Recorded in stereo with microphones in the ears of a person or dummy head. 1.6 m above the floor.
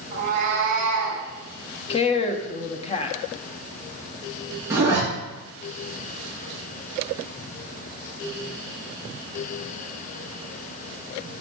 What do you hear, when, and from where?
0.1 s a cat meowing: 40° right (ahead or behind), 3 m; by 1.2 s 60° right (ahead or behind), 3.5 m
1.9 s a woman speaking: 35° left (ahead or behind), 0.8 m
4.7 s a zipper: 10° right (ahead or behind), 3.5 m